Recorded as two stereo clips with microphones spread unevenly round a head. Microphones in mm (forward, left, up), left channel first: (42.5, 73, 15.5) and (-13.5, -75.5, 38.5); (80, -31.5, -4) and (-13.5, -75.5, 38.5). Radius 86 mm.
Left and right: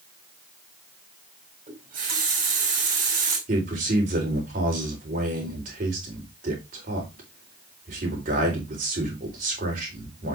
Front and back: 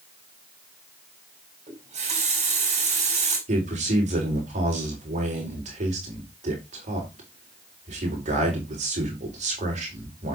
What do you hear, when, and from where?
1.7 s a running tap: 155° right, 5 m
3.5 s a man speaking: 155° right, 4.5 m